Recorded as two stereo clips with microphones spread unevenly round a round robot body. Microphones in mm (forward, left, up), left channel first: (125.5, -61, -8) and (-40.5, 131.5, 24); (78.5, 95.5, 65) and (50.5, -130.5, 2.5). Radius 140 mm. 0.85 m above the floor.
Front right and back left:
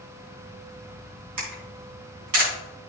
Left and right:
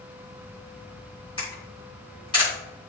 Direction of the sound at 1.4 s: 155° left.